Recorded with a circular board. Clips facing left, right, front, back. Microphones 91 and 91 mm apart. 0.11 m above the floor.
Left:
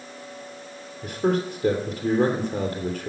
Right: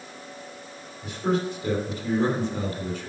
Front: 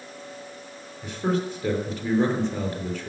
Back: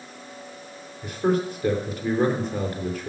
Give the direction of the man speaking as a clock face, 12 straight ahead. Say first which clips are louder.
Left 2 dB, back 3 dB; 9 o'clock.